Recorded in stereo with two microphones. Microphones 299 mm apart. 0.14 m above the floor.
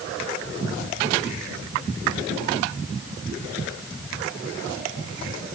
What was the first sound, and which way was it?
Only background noise.